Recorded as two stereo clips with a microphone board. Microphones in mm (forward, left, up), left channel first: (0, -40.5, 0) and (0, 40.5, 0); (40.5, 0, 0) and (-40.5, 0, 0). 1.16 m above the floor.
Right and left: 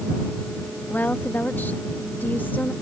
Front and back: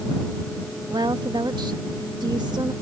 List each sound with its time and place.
0.9 s a woman speaking: 155° right